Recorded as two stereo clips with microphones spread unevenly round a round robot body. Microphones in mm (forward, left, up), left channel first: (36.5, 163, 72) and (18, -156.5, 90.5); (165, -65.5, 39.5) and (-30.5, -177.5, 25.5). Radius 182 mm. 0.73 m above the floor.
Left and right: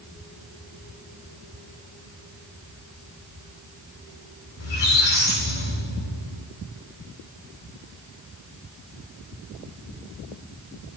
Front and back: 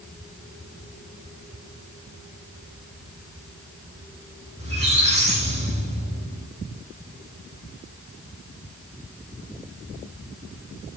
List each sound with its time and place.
4.6 s a squeak: 90° left, 5 m